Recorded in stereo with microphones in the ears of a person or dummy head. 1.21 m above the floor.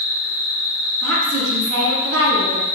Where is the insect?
Centre (ahead or behind), 1.3 m.